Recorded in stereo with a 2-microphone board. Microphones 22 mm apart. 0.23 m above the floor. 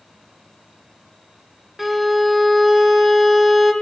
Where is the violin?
5° left (ahead or behind), 1.2 m.